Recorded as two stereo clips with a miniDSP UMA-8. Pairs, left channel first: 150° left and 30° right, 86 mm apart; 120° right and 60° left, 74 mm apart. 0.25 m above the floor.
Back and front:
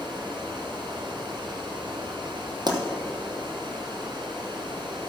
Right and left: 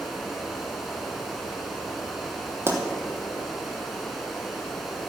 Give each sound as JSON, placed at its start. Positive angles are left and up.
{"t": 0.0, "sound": "running water", "azimuth_deg": -30, "distance_m": 2.0}
{"t": 2.7, "sound": "a pop", "azimuth_deg": 5, "distance_m": 1.4}